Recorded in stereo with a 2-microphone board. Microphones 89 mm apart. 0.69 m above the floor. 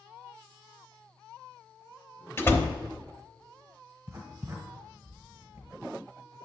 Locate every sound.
2.4 s a door slam: 25° left (ahead or behind), 0.8 m
4.1 s writing: 30° right (ahead or behind), 1.5 m